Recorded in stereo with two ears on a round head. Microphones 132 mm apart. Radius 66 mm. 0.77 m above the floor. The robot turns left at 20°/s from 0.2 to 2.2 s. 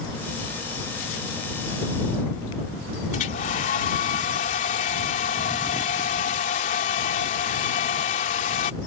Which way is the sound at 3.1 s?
55° left (ahead or behind).